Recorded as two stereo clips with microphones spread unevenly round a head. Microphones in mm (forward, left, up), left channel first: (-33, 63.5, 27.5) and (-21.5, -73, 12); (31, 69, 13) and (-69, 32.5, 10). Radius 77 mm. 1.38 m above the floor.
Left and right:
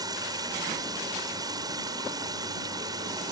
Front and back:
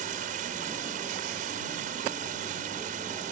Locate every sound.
0.0 s running water: 150° right